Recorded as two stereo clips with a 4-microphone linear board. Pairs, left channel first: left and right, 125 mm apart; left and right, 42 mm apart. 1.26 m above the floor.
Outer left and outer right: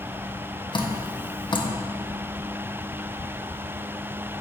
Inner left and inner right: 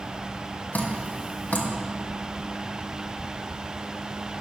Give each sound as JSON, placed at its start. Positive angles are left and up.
{"t": 0.7, "sound": "dripping", "side_deg": 40, "distance_m": 0.6}